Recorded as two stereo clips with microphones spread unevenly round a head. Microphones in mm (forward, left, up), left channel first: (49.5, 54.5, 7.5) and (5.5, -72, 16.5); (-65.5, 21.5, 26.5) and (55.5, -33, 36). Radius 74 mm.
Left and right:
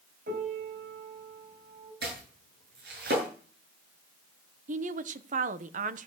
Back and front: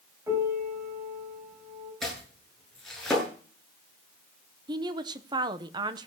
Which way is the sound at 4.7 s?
85° right.